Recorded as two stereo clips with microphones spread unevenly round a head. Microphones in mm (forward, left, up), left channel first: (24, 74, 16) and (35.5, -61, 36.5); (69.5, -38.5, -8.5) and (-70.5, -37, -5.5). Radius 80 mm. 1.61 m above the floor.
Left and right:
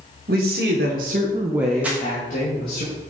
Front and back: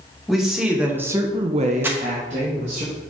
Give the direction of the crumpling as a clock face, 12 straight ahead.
4 o'clock.